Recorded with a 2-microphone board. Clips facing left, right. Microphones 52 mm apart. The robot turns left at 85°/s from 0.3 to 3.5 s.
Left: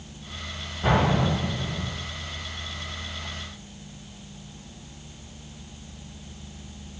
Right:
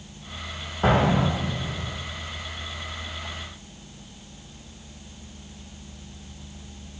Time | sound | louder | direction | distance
0.8 | an explosion | right 2 dB | 125° right | 6.5 m